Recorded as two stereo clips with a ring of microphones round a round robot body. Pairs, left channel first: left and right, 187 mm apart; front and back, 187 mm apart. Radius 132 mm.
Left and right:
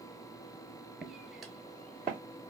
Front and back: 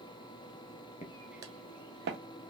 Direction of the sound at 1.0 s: 5° right.